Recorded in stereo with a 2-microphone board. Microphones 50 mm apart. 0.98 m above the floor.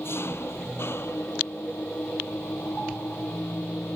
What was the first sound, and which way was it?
An engine running, 55° left (ahead or behind).